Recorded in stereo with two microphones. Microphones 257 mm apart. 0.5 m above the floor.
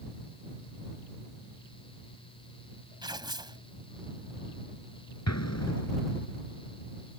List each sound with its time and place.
3.0 s tearing paper: 15° right (ahead or behind)
5.3 s an explosion: 75° left (ahead or behind)